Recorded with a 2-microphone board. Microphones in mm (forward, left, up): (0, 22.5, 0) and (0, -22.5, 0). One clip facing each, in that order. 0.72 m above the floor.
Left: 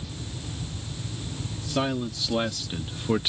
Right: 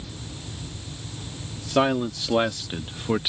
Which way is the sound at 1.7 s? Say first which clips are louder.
Right 6 dB; 30° right (ahead or behind).